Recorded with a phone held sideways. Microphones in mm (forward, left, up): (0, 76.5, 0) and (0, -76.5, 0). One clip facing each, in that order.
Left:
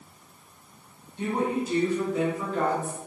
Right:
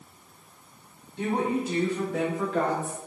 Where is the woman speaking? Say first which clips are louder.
Even; 75° right (ahead or behind), 3.5 m; by 3.0 s 70° right (ahead or behind), 2.5 m.